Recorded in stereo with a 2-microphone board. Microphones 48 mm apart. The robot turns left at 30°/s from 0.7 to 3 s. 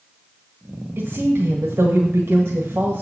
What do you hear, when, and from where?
1.0 s a woman speaking: 65° right, 1.5 m; by 3.0 s 125° right, 1.5 m